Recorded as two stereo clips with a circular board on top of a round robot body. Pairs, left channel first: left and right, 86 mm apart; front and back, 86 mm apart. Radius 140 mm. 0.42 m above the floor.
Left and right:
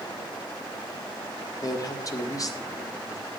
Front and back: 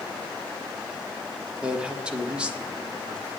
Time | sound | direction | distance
1.6 | a man speaking | 105° left | 1.7 m